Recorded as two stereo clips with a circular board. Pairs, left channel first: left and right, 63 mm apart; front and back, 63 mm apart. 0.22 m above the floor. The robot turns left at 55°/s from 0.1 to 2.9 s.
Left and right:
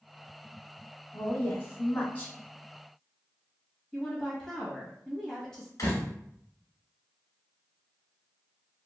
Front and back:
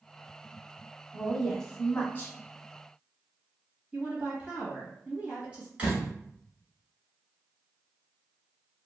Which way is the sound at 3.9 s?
150° left.